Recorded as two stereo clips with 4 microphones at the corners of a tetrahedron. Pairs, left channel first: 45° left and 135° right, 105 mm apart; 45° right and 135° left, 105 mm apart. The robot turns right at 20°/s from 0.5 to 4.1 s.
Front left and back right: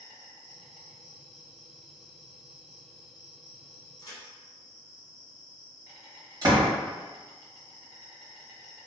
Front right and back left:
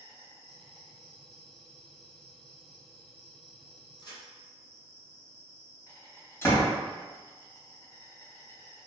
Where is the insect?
150° right, 1.5 m; by 8.9 s 80° right, 1.5 m.